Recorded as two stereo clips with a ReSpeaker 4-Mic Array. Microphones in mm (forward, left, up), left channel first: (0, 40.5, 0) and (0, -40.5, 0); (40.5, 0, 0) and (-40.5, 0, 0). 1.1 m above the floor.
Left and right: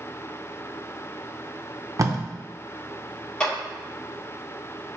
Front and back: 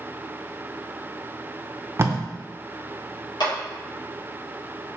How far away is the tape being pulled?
About 0.5 m.